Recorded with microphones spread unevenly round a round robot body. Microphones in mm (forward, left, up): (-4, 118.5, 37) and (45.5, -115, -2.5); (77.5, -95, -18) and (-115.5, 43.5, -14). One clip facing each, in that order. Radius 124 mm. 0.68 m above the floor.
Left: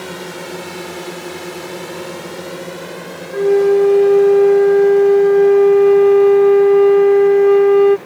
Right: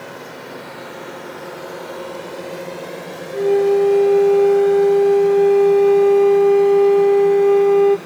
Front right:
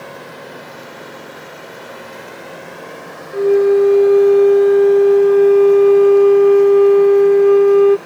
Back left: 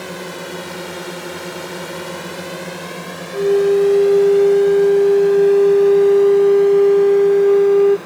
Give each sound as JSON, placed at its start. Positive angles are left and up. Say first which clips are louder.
{"t": 0.0, "sound": "a drone", "louder": "left 6 dB, back left 5 dB", "azimuth_deg": 110}
{"t": 3.3, "sound": "a flute", "louder": "left 3 dB, front right 2 dB", "azimuth_deg": 30}